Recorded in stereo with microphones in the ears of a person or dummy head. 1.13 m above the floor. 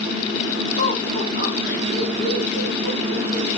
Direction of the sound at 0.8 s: 40° left (ahead or behind).